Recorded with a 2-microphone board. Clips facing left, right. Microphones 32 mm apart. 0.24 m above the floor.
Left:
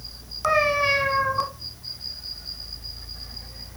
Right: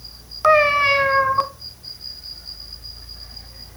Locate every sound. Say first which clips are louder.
0.4 s a cat meowing: right 6 dB; 25° right (ahead or behind), 1.0 m